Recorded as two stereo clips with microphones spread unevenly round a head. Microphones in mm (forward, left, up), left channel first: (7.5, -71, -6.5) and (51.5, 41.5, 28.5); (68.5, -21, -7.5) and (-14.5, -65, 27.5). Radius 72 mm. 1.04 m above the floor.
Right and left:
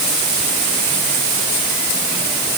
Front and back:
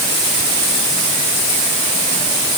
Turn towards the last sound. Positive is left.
No sound to turn to.